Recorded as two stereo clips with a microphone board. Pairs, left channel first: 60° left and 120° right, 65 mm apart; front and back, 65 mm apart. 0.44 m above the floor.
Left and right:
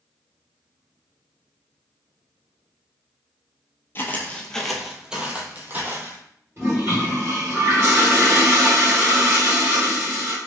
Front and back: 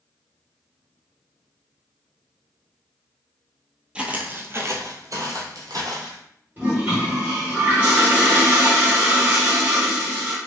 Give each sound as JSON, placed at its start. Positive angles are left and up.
{"t": 4.0, "sound": "footsteps", "azimuth_deg": 110, "distance_m": 0.7}
{"t": 6.6, "sound": "a toilet flushing", "azimuth_deg": -135, "distance_m": 1.3}